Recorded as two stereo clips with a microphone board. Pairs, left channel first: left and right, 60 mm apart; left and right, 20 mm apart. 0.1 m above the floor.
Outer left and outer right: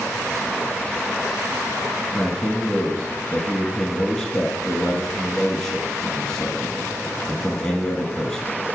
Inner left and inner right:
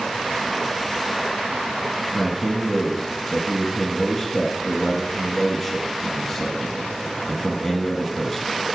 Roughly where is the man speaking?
Centre.